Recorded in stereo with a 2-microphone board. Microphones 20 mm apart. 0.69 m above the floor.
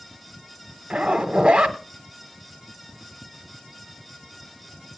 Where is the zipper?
80° right, 1.3 m.